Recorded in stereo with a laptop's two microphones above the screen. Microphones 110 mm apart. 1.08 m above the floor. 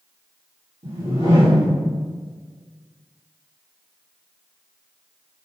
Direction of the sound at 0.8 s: 70° right (ahead or behind).